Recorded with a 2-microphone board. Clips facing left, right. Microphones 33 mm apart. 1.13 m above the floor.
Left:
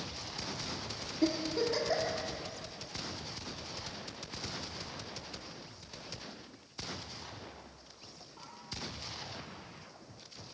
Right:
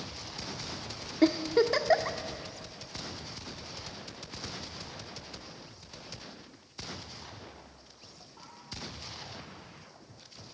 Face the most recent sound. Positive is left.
turn(degrees=-60)  # may be behind; listen again after turning